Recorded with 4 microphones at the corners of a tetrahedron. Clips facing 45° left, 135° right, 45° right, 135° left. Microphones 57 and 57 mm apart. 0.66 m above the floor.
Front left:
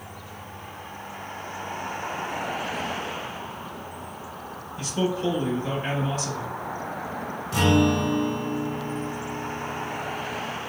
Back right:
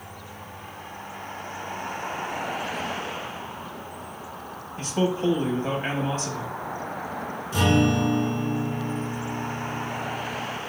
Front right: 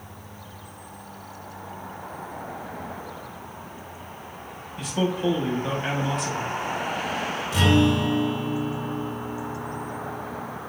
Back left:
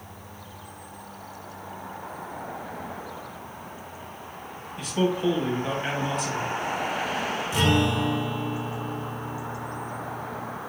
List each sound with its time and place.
4.8 s a man speaking: 135° right, 1.0 m
7.5 s a guitar: 50° left, 1.6 m